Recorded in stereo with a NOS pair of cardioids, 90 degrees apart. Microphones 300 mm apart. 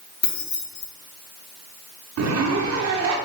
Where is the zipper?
55° right, 1.4 m.